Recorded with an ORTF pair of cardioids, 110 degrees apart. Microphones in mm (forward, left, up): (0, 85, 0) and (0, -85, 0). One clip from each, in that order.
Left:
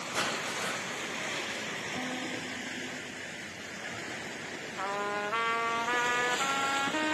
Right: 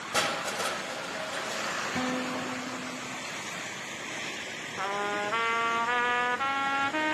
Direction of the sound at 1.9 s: 35° right.